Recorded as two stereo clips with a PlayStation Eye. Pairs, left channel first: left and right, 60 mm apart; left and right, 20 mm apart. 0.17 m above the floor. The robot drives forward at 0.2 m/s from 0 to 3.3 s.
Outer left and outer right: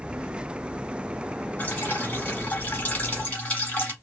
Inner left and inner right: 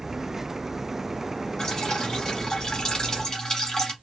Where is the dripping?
30° left (ahead or behind), 1.0 m; by 3.9 s 25° left (ahead or behind), 1.1 m.